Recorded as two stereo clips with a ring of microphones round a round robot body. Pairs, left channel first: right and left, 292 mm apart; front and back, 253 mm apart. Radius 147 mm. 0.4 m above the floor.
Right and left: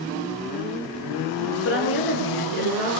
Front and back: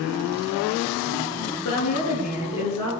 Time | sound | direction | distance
1.6 | a woman speaking | 35° right | 7 m